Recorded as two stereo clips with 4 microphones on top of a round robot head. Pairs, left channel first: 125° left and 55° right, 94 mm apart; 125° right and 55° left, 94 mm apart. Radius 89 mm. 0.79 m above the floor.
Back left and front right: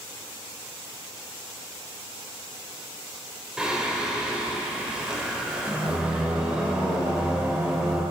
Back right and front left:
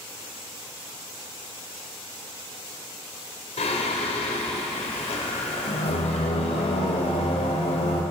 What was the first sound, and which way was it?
Singing, 135° right.